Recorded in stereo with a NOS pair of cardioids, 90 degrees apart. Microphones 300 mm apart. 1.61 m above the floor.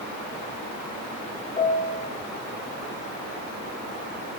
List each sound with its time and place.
1.6 s a piano: 20° left, 1.6 m